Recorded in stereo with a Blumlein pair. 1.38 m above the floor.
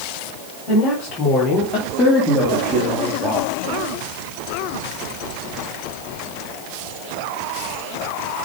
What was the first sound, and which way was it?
A woman speaking, 40° left.